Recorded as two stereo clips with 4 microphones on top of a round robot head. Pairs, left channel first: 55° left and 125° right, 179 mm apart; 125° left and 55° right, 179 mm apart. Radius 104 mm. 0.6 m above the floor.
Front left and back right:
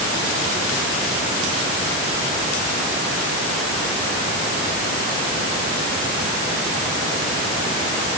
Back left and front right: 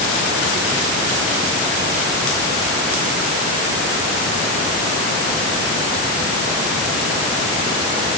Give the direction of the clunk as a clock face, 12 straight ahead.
I don't hear a clunk.